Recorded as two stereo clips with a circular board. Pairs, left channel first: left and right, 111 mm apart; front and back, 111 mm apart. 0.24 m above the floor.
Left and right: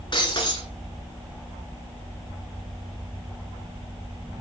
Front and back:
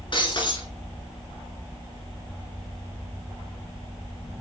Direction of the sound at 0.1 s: 45° left.